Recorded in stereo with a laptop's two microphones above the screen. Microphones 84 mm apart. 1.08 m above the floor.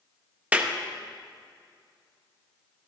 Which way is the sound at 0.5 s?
15° right (ahead or behind).